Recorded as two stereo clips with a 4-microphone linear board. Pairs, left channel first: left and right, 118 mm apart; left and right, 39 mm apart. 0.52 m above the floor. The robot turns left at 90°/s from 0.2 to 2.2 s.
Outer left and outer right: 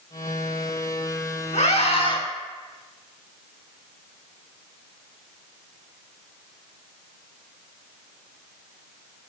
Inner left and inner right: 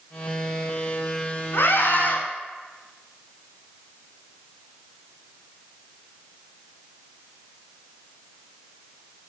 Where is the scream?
100° left, 6 m; by 2.2 s 45° left, 6 m.